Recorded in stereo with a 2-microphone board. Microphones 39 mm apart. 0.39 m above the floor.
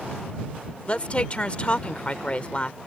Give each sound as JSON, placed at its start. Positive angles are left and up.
{"t": 0.9, "sound": "a woman speaking", "side_deg": 30}